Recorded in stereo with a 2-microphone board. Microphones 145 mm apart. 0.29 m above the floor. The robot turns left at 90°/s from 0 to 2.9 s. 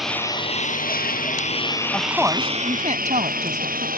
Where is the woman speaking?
15° left; by 3.9 s 75° right.